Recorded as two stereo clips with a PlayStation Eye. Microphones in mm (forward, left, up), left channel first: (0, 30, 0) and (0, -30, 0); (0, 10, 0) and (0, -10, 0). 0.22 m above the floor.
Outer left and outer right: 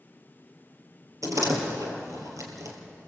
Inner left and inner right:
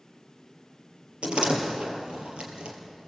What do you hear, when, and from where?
1.2 s a door slam: 65° right (ahead or behind), 3.5 m